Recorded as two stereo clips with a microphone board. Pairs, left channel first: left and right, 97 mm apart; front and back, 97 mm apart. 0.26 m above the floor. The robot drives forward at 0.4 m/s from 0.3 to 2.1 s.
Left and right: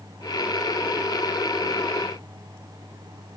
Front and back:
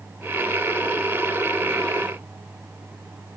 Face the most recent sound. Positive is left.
No sound to turn to.